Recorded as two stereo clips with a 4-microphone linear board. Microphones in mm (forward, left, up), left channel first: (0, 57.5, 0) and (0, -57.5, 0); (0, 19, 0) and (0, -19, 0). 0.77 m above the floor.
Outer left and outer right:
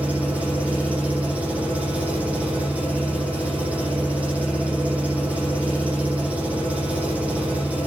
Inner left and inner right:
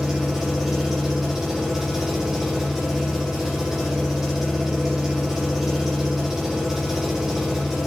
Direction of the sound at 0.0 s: 10° right (ahead or behind).